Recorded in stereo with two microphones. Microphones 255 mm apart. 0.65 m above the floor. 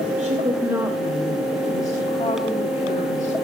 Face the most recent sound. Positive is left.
turn(degrees=30)  # may be behind; listen again after turning